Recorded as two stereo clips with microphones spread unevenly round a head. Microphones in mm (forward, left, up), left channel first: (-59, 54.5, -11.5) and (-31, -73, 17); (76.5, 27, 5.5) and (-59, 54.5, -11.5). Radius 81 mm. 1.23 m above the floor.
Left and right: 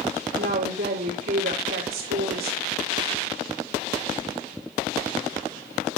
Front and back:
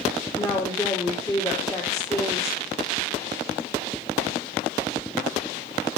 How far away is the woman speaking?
About 3 m.